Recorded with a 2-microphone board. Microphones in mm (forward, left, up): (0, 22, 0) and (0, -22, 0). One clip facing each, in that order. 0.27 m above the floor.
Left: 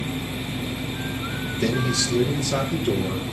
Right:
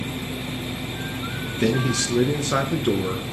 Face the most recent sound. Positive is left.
turn(degrees=-45)  # may be behind; listen again after turning